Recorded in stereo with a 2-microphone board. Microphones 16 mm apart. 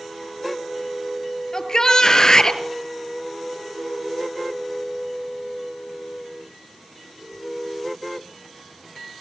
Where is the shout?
40° left (ahead or behind), 2 m.